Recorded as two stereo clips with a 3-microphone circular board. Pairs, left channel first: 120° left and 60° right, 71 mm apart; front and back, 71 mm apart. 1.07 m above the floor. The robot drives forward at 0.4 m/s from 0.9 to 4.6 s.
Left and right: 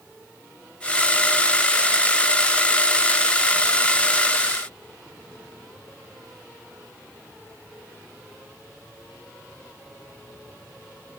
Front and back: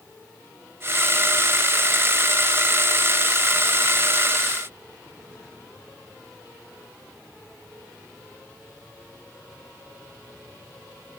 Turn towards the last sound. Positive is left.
No sound to turn to.